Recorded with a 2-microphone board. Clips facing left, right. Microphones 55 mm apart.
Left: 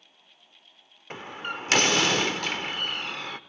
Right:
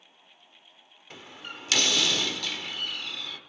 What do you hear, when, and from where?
1.1 s a door slam: 40° left (ahead or behind), 1.0 m